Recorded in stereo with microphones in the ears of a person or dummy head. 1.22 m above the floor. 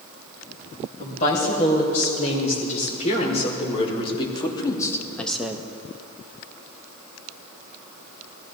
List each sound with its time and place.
1.0 s a woman speaking: 45° left (ahead or behind), 6.5 m; by 5.7 s 15° right (ahead or behind), 1.1 m